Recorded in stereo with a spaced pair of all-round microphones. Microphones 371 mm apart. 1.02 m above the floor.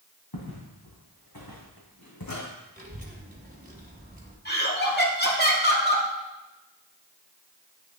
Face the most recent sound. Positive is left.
turn(degrees=25)  # may be behind; listen again after turning